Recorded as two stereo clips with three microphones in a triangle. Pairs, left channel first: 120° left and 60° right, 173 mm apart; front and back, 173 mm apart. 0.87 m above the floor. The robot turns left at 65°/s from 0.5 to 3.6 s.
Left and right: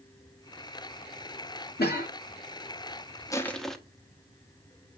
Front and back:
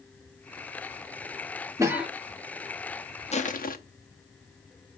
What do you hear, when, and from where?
1.8 s a cough: 110° left, 1.8 m; by 2.1 s 90° left, 1.8 m
3.3 s crushing: 50° left, 0.8 m; by 3.8 s 30° left, 0.8 m